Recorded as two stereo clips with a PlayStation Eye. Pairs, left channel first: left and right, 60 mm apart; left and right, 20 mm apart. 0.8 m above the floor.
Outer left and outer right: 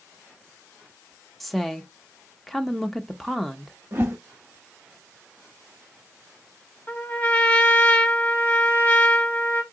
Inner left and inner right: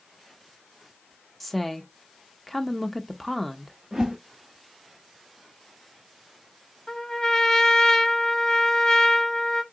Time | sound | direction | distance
1.4 | a woman speaking | centre (ahead or behind) | 0.6 m
3.9 | a whoosh | 45° right (ahead or behind) | 0.8 m
6.9 | a trumpet | 20° left (ahead or behind) | 1.0 m